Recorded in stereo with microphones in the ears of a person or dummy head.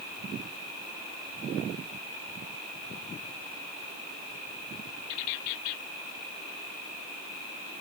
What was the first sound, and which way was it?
Only background noise.